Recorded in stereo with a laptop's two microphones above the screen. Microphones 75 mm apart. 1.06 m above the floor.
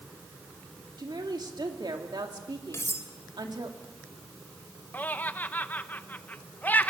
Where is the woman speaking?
75° right (ahead or behind), 3 m.